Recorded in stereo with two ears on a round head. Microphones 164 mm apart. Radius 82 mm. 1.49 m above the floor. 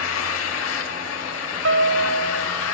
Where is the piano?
75° right (ahead or behind), 3.5 m.